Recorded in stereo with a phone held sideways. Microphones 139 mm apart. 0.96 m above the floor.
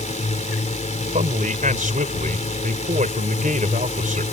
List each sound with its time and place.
0.0 s a drone: 60° left (ahead or behind)
1.1 s a man speaking: 70° right (ahead or behind)